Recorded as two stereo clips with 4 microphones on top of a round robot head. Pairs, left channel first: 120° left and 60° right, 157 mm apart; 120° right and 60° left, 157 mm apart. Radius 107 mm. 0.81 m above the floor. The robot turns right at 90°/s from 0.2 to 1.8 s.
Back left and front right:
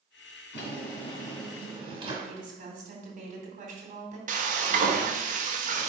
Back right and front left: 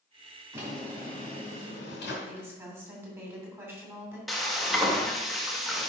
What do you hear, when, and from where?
0.5 s a drawer: 125° left, 2.5 m; by 2.1 s 120° right, 2.5 m
2.2 s a woman speaking: 15° right, 2.5 m
4.3 s frying: 30° right, 1.3 m